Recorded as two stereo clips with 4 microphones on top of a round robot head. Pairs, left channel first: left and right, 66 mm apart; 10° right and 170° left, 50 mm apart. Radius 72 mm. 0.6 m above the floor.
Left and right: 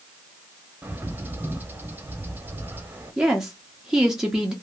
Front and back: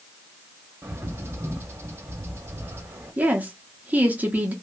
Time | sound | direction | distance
0.8 | a bird | 150° right | 0.8 m
3.2 | a woman speaking | 165° right | 0.7 m